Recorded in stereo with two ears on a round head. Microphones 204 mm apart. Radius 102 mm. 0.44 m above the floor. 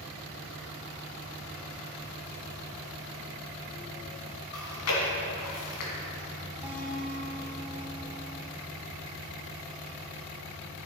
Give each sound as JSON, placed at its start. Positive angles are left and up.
{"t": 4.5, "sound": "chewing", "side_deg": 75, "distance_m": 2.0}
{"t": 6.6, "sound": "a guitar", "side_deg": -5, "distance_m": 1.6}